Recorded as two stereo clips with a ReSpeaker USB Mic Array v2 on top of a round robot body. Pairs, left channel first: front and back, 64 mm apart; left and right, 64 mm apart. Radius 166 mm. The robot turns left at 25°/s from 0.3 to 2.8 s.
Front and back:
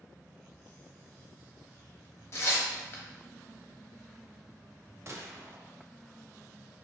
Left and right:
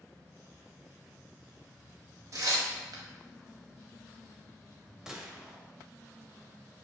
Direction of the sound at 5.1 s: 165° right.